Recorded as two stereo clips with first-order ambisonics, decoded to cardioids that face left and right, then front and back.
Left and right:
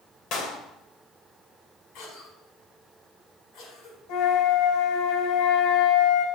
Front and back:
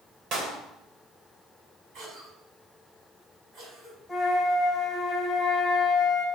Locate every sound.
0.3 s a clap: 135° left, 2.5 m
1.9 s a cough: 125° left, 5 m
4.1 s a flute: 90° left, 2.5 m